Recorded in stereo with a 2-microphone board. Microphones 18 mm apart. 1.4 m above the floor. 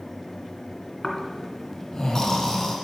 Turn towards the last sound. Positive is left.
turn(degrees=30)  # may be behind; listen again after turning